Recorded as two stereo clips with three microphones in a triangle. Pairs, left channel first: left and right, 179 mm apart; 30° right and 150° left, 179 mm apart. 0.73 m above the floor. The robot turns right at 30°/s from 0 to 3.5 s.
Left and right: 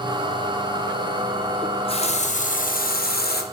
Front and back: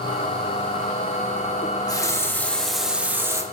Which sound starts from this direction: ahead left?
A running tap, at 1.6 s.